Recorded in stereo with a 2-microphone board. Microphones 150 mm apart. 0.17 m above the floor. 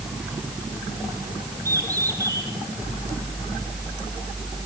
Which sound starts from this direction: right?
A bird, at 1.6 s.